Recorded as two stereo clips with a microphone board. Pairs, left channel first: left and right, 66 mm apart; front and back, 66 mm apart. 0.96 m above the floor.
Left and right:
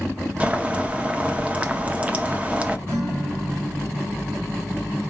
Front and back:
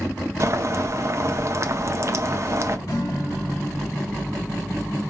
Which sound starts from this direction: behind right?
Boiling, at 0.4 s.